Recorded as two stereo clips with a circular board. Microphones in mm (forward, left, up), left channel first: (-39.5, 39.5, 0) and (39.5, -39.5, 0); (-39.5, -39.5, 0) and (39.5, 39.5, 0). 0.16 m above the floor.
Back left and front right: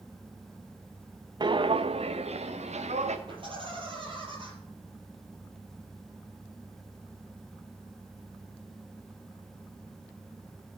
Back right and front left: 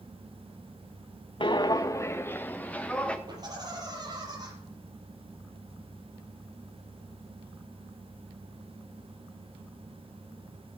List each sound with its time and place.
1.4 s footsteps: 95° right, 0.6 m; by 3.2 s 55° right, 1.6 m
3.3 s laughter: 5° right, 5 m